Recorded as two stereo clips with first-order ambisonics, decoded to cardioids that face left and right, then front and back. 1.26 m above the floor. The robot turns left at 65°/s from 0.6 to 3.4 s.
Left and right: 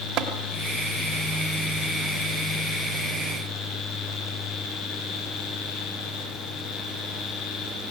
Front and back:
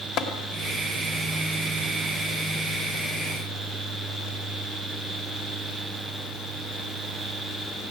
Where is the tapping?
40° right, 2.5 m.